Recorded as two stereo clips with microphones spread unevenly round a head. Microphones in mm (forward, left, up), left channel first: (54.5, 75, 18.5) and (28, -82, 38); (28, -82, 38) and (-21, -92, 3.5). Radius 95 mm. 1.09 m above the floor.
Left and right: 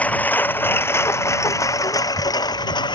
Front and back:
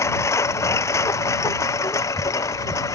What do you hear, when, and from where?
0.0 s a lawn mower: straight ahead; by 3.0 s 15° left